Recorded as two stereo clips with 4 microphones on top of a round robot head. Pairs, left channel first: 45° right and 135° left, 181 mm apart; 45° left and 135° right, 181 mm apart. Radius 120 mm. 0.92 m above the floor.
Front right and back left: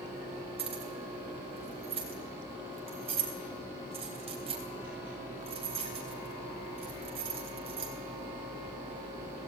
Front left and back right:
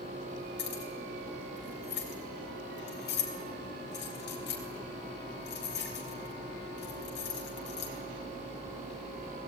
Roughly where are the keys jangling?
Left.